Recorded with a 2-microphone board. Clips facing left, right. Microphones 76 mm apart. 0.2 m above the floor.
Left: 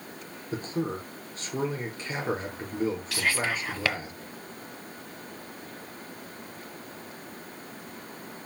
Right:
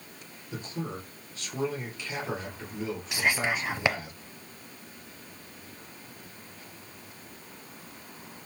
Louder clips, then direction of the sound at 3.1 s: Right 1 dB; 20° right (ahead or behind).